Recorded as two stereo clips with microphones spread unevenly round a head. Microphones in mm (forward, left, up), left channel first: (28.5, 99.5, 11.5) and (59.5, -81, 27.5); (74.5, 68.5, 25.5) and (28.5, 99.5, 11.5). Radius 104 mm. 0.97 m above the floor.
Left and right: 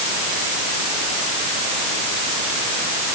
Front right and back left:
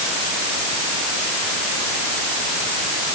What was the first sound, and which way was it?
Only background noise.